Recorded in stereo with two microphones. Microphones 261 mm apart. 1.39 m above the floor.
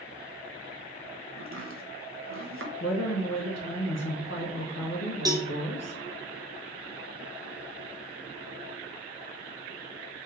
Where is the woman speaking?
75° left (ahead or behind), 1.3 m.